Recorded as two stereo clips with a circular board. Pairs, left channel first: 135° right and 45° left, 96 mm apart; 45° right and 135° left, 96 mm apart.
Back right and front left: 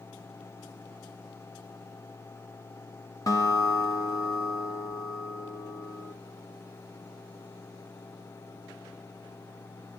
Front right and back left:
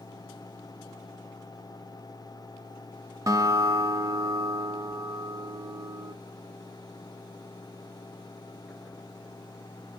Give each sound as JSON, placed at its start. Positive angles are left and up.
{"t": 3.3, "sound": "a guitar", "azimuth_deg": 180, "distance_m": 0.7}